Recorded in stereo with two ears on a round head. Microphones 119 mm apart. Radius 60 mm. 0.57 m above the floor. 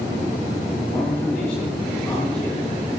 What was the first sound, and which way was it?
A man speaking, 20° left (ahead or behind).